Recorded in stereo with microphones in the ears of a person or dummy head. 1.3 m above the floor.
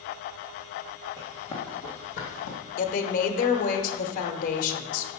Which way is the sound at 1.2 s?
15° left (ahead or behind).